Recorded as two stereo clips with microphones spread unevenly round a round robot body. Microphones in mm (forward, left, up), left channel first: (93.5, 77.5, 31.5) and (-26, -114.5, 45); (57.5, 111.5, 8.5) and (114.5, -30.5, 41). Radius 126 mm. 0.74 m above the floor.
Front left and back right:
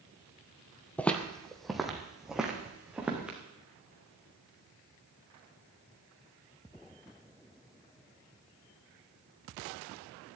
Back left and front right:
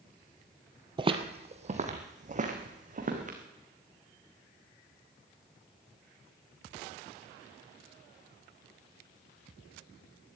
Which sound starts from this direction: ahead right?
Footsteps, at 1.0 s.